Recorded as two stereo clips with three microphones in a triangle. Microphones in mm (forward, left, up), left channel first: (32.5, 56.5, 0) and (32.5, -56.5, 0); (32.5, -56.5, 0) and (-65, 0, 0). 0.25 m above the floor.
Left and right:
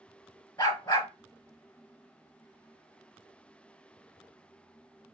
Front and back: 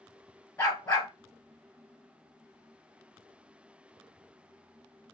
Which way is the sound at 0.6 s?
35° left.